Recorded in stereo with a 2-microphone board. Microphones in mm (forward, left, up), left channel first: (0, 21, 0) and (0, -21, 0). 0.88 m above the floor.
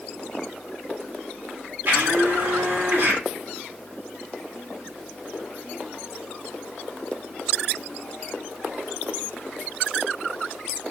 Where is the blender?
65° right (ahead or behind), 2 m.